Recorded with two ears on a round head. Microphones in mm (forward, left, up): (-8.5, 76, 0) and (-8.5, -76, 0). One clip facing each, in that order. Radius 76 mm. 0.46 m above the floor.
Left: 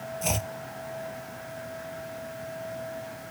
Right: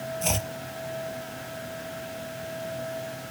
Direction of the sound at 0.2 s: Centre (ahead or behind).